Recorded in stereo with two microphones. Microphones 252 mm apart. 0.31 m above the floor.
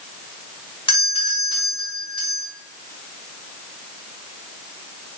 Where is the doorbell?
20° left (ahead or behind), 1.6 m.